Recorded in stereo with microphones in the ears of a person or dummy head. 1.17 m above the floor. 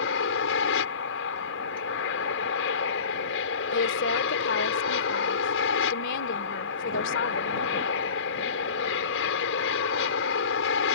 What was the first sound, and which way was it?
An aircraft, 70° left (ahead or behind).